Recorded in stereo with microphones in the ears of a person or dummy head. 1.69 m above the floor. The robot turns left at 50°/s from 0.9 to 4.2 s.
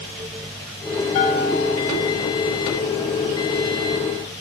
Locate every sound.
1.1 s a bell: 140° left, 9.5 m; by 2.0 s 95° left, 9.5 m